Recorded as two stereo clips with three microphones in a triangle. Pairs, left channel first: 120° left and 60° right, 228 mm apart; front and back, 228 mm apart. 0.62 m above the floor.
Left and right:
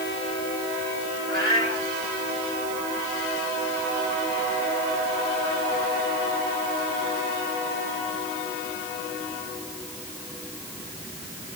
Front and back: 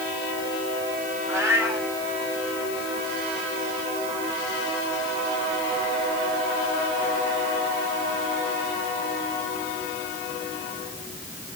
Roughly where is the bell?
No bell in this recording.